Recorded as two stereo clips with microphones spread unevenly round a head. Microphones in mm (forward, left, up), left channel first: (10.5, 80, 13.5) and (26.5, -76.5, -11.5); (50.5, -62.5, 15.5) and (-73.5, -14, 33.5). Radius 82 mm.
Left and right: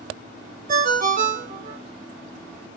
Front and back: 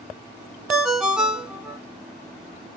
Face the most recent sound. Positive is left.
turn(degrees=-120)